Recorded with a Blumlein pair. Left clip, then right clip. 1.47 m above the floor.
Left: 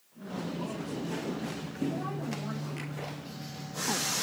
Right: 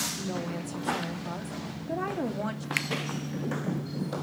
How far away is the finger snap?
About 1.2 m.